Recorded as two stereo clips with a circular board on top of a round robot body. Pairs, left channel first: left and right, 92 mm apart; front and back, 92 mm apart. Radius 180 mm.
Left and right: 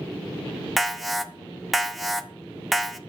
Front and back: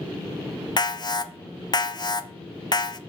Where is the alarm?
Straight ahead, 0.7 m.